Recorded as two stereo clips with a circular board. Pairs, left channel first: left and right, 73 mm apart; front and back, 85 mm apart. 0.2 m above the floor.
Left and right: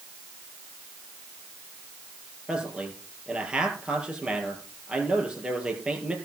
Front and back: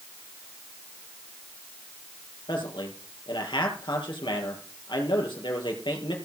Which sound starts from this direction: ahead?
A man speaking, at 2.5 s.